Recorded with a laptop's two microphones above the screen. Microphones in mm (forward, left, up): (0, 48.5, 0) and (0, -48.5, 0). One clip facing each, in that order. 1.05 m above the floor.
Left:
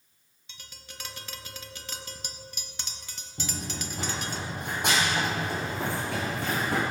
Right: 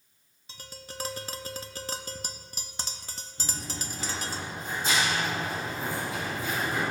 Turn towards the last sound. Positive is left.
turn(degrees=75)  # may be behind; listen again after turning